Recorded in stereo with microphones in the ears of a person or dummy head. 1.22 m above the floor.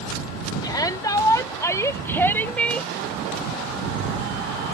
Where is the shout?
25° left (ahead or behind); by 2.9 s 5° left (ahead or behind).